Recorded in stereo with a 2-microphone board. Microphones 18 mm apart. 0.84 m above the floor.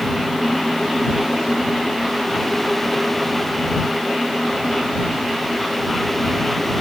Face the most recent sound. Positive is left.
No sound to turn to.